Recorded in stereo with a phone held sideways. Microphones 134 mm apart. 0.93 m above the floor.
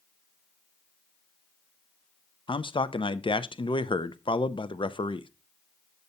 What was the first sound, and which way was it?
A man speaking, 40° left (ahead or behind).